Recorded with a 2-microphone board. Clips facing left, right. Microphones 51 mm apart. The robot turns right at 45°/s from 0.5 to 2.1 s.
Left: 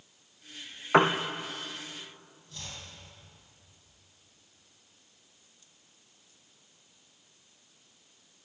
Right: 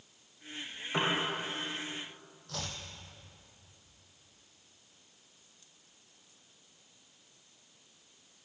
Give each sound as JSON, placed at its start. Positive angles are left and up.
{"t": 0.9, "sound": "a piano", "side_deg": 55, "distance_m": 2.5}
{"t": 2.5, "sound": "chopping", "side_deg": -70, "distance_m": 4.5}